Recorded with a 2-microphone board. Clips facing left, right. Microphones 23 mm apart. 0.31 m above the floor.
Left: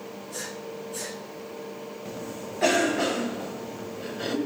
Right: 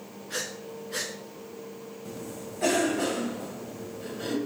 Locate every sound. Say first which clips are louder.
0.3 s breathing: right 3 dB; 75° right (ahead or behind), 3 m
2.0 s a cough: left 2 dB; 25° left (ahead or behind), 1.7 m